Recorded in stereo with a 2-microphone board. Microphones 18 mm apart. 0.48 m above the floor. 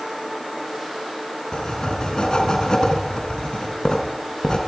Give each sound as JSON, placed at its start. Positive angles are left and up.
{"t": 1.5, "sound": "writing", "side_deg": 55, "distance_m": 3.5}